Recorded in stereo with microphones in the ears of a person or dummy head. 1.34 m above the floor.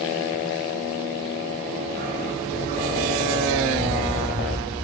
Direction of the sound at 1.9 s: 50° right (ahead or behind).